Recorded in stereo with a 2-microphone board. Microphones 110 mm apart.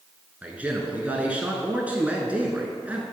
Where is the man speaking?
15° right (ahead or behind), 1.1 m.